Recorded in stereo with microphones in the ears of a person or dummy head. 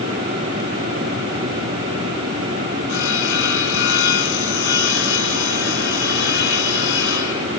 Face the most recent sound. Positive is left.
turn(degrees=60)  # may be behind; listen again after turning